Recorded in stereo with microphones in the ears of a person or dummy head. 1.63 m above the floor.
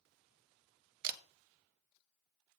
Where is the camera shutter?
55° right (ahead or behind), 0.6 m.